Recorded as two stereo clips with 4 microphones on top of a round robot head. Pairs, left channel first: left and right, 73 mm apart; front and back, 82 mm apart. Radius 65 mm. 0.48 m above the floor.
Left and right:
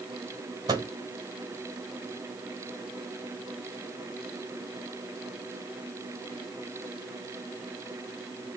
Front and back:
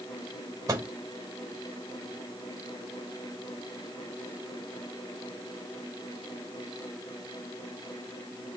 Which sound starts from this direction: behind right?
A microwave, at 0.7 s.